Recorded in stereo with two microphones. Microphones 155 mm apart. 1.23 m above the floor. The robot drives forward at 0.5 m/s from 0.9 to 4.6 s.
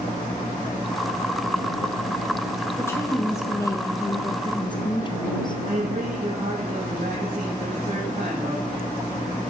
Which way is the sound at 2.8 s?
15° left (ahead or behind).